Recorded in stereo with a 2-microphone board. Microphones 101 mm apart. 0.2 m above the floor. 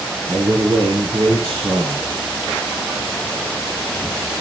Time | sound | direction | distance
0.3 | a man speaking | 45° right (ahead or behind) | 2 m